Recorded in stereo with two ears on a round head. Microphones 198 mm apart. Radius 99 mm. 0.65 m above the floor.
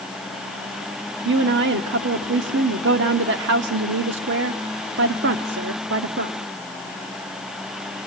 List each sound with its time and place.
1.2 s a woman speaking: 60° right (ahead or behind), 1.3 m